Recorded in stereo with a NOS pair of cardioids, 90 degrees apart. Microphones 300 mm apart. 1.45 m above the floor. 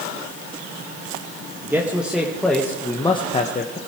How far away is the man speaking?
About 1.9 m.